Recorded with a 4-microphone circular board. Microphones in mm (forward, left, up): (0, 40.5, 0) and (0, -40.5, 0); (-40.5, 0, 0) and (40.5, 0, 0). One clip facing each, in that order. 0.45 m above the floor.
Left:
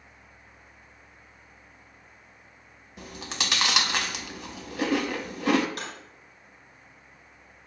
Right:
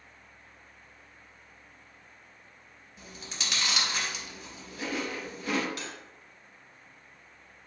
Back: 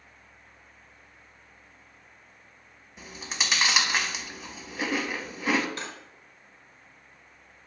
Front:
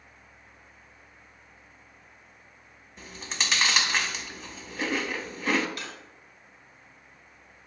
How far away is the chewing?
About 0.7 m.